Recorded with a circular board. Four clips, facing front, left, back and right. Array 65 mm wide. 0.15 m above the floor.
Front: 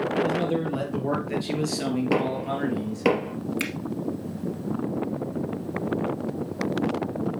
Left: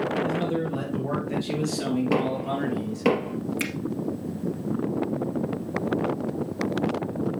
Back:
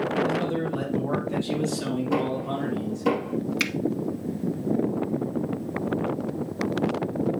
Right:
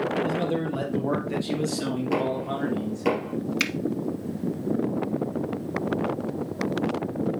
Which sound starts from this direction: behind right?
A finger snap, at 3.6 s.